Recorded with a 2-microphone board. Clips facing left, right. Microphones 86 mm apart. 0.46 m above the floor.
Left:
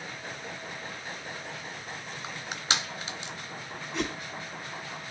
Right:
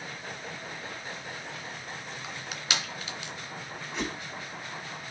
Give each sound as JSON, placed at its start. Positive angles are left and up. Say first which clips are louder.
{"t": 2.2, "sound": "crushing", "louder": "left 3 dB", "side_deg": 30, "distance_m": 2.0}
{"t": 3.9, "sound": "a whoosh", "louder": "left 2 dB", "side_deg": 0, "distance_m": 3.5}